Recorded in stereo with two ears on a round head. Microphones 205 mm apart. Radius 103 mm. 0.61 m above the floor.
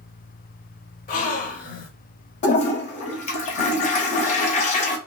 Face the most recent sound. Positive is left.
turn(degrees=35)  # may be behind; listen again after turning